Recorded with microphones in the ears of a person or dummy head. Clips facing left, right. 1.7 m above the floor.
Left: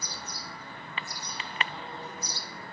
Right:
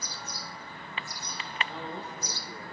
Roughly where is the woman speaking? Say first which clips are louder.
Right 2 dB; right.